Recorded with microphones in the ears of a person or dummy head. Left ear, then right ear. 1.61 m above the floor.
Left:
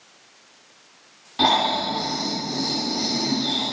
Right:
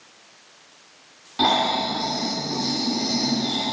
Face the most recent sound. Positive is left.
turn(degrees=5)  # may be behind; listen again after turning